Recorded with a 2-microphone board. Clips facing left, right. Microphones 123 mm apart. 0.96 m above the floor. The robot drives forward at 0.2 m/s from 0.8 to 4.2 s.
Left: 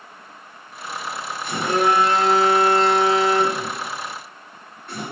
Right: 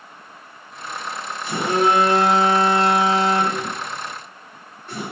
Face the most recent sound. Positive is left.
turn(degrees=-10)  # may be behind; listen again after turning